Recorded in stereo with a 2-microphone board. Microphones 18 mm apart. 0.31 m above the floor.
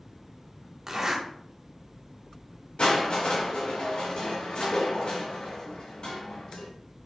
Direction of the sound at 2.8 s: 65° left (ahead or behind).